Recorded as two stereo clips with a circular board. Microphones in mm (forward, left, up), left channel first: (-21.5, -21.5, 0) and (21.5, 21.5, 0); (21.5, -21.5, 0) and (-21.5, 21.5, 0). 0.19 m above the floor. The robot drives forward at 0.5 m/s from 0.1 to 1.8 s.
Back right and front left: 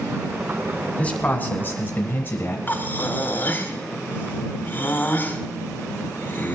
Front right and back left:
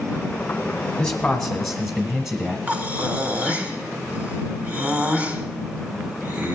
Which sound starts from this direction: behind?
Breathing, at 2.7 s.